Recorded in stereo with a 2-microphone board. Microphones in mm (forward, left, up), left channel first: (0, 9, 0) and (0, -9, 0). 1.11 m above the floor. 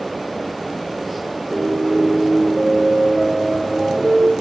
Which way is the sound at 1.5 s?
5° right (ahead or behind).